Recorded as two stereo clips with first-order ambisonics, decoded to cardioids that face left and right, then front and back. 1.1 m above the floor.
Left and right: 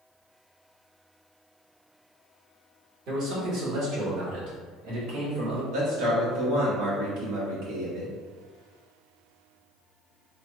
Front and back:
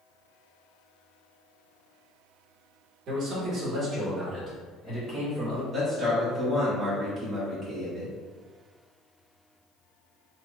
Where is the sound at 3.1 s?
135° right, 1.2 m; by 5.6 s 90° right, 2.5 m.